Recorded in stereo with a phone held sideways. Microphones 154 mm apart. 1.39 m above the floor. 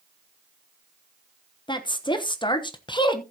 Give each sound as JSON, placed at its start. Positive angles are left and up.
{"t": 1.7, "sound": "a woman speaking", "side_deg": 30, "distance_m": 1.0}